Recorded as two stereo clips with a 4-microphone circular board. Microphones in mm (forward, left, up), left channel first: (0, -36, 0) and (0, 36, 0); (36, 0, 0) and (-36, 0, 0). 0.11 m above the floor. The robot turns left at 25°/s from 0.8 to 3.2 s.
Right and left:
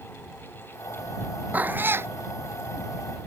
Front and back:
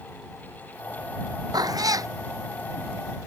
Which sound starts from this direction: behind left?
A cat meowing, at 1.5 s.